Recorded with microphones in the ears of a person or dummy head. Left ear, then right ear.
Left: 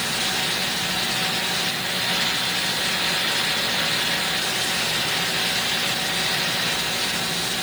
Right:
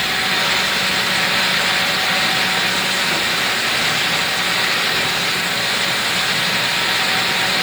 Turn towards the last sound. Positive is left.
No sound to turn to.